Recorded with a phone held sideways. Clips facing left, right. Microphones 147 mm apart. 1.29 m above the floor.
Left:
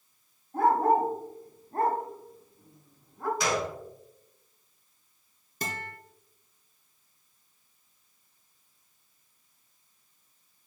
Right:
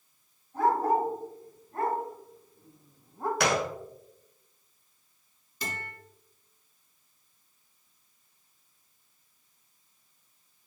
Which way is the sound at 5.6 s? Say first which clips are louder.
Left 2 dB; 50° left (ahead or behind).